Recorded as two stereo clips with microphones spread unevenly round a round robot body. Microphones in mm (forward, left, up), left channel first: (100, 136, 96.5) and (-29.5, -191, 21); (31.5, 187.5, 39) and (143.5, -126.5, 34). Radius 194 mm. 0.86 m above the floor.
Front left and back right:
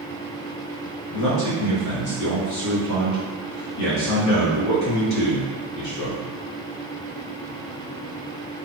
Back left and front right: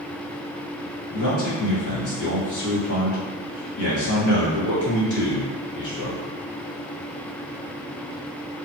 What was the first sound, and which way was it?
A man speaking, 95° left.